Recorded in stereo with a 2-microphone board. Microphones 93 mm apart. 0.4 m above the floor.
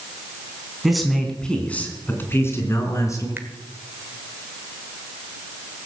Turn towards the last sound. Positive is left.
turn(degrees=-20)  # may be behind; listen again after turning